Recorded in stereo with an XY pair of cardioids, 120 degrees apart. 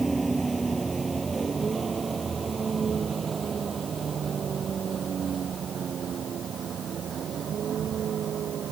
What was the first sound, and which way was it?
A vehicle, 15° right.